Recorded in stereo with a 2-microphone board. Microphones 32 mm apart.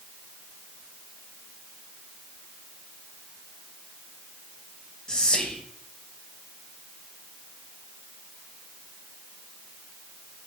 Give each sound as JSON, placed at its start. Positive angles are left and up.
{"t": 5.1, "sound": "whispering", "side_deg": 25, "distance_m": 0.6}